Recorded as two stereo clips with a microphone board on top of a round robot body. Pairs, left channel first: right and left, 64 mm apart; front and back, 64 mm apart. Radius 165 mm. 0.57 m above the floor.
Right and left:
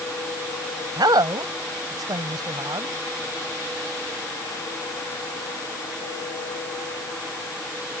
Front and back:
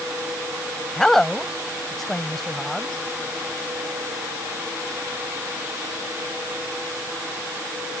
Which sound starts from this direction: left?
A woman speaking, at 1.0 s.